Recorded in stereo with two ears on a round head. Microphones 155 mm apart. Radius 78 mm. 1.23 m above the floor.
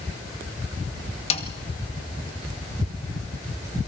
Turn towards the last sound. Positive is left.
turn(degrees=35)  # may be behind; listen again after turning